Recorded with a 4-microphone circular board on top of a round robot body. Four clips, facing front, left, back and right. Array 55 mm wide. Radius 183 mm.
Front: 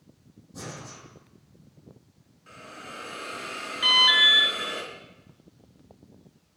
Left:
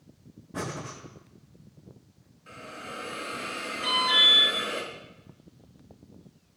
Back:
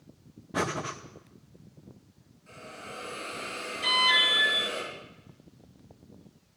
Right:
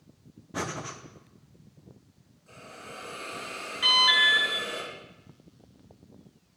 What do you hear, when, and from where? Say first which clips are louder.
0.5 s breathing: right 1 dB, back 10 dB; 160° right, 1.9 m
2.5 s a hiss: left 4 dB, front 1 dB; 60° left, 5 m
3.8 s an alarm: right 2 dB, front 4 dB; 35° right, 6.5 m